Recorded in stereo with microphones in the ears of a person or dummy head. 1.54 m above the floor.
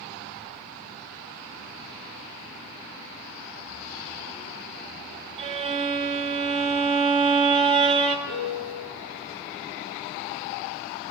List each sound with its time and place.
5.4 s a violin: 35° right (ahead or behind), 0.6 m
8.3 s a piano: 40° left (ahead or behind), 2 m